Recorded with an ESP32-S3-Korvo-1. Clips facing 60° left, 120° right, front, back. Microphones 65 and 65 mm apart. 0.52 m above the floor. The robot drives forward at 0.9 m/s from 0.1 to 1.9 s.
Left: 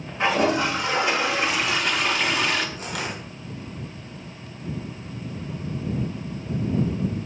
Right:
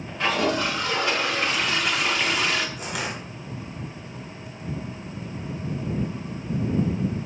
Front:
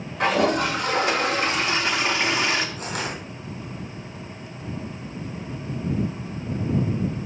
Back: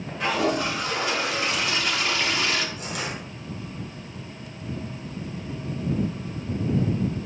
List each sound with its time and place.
0.2 s a toilet flushing: 5° right, 2 m; by 2.7 s 30° right, 1.0 m
2.8 s crushing: 45° right, 4 m